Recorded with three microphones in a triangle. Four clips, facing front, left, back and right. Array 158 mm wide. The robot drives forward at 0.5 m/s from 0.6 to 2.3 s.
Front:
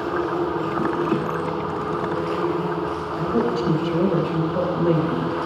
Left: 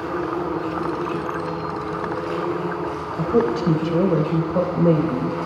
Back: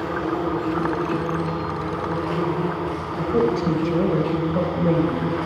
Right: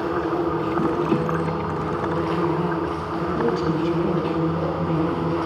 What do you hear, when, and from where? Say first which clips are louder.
0.0 s an insect: right 2 dB, front 1 dB; 110° right, 8.5 m; by 5.5 s 115° right, 8.5 m
3.2 s a woman speaking: left 4 dB, back 2 dB; 95° left, 3.5 m